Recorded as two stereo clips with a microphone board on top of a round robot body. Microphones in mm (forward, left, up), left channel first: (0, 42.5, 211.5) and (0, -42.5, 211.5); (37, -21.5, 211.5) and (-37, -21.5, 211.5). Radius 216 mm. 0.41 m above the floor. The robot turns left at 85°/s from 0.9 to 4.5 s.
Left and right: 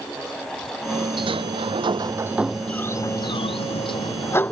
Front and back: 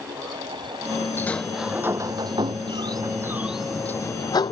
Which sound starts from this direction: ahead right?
A sliding door, at 1.2 s.